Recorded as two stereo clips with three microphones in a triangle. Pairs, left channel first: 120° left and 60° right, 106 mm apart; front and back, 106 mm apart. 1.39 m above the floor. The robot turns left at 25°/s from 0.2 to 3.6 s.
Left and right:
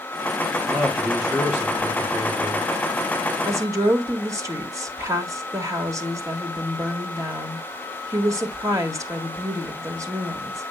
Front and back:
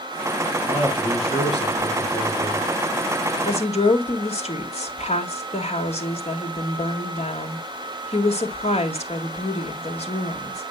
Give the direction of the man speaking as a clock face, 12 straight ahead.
11 o'clock.